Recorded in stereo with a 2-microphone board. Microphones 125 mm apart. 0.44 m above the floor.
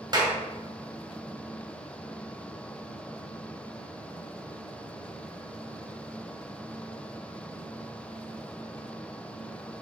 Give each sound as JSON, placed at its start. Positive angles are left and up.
{"t": 0.1, "sound": "a clap", "side_deg": -35, "distance_m": 2.0}